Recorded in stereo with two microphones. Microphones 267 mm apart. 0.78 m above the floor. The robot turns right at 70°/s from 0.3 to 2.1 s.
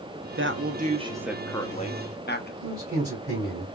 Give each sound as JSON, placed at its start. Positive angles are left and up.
{"t": 0.3, "sound": "a woman speaking", "azimuth_deg": -70, "distance_m": 0.8}
{"t": 2.6, "sound": "a man speaking", "side_deg": -35, "distance_m": 2.5}